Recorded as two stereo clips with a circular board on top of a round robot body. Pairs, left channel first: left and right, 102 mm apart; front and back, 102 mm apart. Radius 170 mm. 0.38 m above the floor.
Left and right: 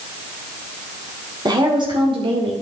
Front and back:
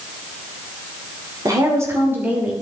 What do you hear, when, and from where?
1.4 s a woman speaking: 130° right, 2.5 m; by 2.5 s 105° right, 2.5 m